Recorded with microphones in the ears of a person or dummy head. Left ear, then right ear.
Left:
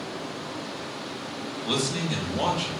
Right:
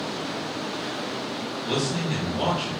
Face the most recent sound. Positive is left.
turn(degrees=10)  # may be behind; listen again after turning